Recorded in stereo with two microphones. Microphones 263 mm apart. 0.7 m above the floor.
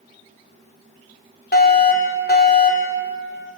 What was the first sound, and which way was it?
A fire alarm, 35° left (ahead or behind).